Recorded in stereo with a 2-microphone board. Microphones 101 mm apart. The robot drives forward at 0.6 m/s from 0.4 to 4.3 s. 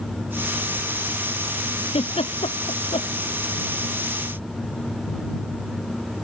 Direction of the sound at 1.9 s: 70° left (ahead or behind).